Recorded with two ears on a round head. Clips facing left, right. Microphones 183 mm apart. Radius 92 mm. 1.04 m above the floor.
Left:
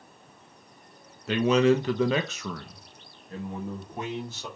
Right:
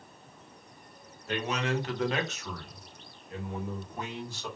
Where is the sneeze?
I don't hear a sneeze.